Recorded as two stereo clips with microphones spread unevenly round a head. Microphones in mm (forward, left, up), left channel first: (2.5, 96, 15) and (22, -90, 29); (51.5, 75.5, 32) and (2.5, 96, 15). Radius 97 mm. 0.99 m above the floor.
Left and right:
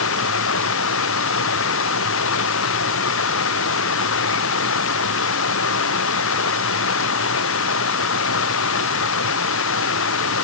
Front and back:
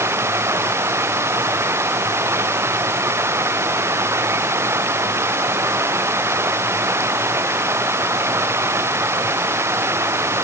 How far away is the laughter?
No laughter in this recording.